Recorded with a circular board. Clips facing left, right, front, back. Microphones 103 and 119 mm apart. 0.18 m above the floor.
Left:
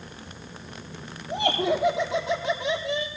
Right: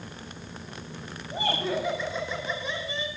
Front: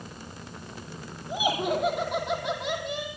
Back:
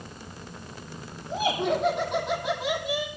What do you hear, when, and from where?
1.3 s laughter: 80° left, 7.5 m; by 3.1 s 95° left, 6 m